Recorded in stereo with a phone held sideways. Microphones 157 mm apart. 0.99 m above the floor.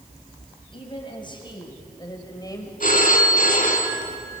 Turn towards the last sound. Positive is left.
turn(degrees=60)  # may be behind; listen again after turning